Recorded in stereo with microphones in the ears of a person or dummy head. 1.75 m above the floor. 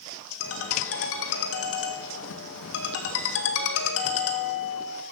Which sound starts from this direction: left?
A ringtone, at 0.4 s.